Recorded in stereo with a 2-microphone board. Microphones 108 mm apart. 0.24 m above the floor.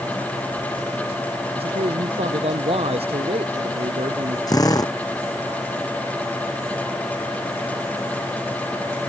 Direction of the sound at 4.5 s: 35° left (ahead or behind).